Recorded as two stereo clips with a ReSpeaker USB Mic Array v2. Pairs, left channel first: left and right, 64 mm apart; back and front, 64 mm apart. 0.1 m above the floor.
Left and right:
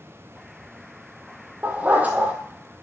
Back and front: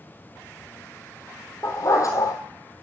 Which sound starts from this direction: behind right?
A dog barking, at 1.6 s.